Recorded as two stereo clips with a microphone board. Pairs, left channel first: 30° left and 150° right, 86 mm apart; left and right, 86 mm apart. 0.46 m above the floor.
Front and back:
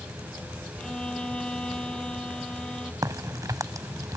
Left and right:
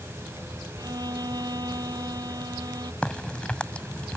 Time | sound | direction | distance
0.8 | a violin | 50° right | ?
3.0 | a crack | 165° left | ?